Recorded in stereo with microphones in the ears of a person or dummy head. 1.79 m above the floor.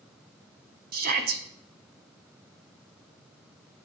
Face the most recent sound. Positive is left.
turn(degrees=-50)  # may be behind; listen again after turning